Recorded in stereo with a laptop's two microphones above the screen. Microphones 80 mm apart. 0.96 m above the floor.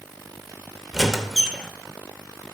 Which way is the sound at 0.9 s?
5° right (ahead or behind).